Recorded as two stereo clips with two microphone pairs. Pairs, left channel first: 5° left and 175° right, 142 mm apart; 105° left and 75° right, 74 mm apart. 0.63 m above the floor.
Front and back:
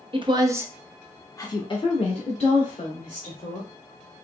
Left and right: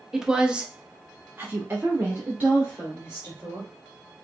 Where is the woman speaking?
155° right, 0.7 m; by 3.7 s 10° right, 1.7 m.